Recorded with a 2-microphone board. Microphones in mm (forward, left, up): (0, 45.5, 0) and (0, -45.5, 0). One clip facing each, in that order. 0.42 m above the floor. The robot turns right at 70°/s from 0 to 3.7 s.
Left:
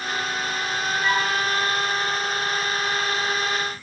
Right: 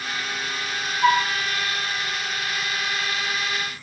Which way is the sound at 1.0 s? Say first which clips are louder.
Right 6 dB; 70° right (ahead or behind).